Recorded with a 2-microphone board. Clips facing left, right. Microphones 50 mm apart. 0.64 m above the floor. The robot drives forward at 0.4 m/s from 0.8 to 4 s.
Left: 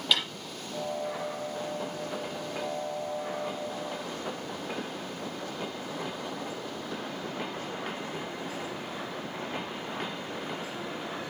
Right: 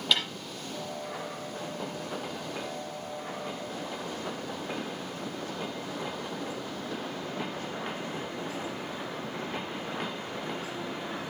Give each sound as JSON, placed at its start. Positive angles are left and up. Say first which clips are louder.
{"t": 0.1, "sound": "a snare drum", "louder": "even", "side_deg": 0, "distance_m": 6.0}